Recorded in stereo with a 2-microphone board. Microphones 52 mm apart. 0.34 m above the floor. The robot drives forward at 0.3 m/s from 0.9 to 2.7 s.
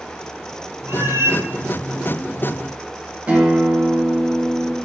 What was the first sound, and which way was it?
A cat meowing, 80° right.